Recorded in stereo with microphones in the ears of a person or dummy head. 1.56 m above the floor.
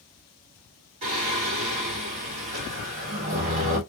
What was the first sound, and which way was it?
Singing, 35° right (ahead or behind).